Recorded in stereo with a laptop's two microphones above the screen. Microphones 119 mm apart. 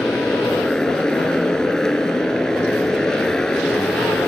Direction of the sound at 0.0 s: 5° left (ahead or behind).